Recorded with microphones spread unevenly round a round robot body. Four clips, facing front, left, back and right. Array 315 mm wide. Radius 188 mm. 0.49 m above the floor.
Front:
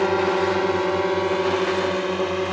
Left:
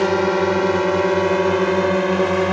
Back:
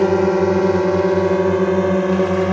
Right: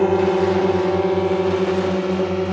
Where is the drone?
160° right; by 2.5 s straight behind.